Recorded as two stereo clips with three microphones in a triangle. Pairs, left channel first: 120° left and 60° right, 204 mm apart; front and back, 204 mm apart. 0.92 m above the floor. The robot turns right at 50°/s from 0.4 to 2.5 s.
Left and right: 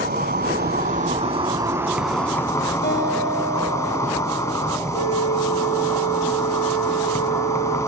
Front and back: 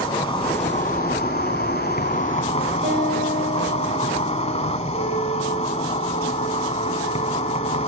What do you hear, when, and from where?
0.0 s an insect: 55° right, 1.2 m; by 7.9 s 50° left, 1.2 m
2.8 s a guitar: 150° left, 6 m
4.9 s a flute: 130° left, 7 m